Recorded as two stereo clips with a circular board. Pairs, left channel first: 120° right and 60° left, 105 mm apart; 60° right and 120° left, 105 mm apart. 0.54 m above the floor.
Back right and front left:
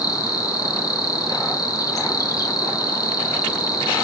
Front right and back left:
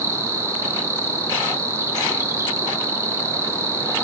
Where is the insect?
175° right, 0.8 m.